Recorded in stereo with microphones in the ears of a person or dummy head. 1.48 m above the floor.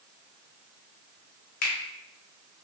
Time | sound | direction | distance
1.6 | a finger snap | 55° left (ahead or behind) | 0.7 m